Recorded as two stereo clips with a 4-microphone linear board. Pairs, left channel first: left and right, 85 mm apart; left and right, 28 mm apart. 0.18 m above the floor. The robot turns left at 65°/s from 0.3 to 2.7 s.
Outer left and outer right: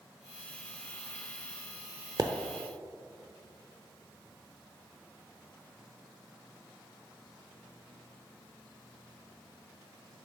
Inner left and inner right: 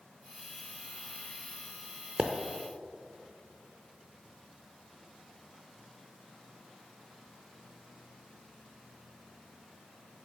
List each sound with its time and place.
2.2 s a pop: 45° right (ahead or behind), 0.6 m; by 2.3 s 50° right (ahead or behind), 0.6 m